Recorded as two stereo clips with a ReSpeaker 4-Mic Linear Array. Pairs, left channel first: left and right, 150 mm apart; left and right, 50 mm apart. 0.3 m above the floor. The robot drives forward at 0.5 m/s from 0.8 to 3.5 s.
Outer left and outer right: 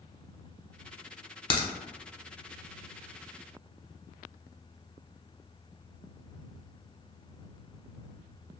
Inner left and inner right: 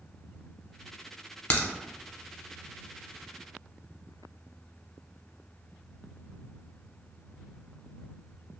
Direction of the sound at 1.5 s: 35° left (ahead or behind).